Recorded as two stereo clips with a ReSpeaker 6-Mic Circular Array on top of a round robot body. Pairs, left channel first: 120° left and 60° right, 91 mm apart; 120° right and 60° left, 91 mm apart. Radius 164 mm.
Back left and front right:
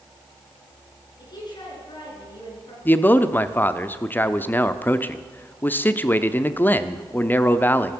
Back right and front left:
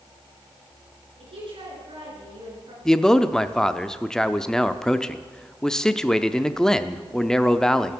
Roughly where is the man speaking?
Behind.